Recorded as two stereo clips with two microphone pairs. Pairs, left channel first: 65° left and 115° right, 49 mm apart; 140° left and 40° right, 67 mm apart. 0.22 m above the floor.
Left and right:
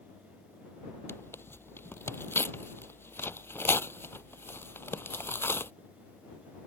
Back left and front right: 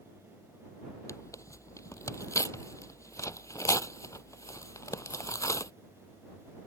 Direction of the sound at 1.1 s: 100° left.